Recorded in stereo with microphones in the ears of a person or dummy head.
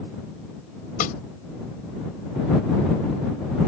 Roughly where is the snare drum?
Left.